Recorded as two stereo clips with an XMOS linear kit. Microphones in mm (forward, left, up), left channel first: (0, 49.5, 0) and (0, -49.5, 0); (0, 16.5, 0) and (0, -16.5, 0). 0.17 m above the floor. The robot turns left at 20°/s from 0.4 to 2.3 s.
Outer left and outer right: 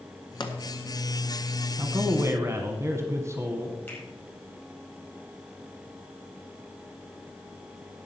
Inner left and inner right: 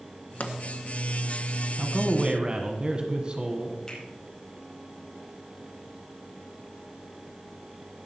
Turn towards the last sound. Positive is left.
turn(degrees=20)  # may be behind; listen again after turning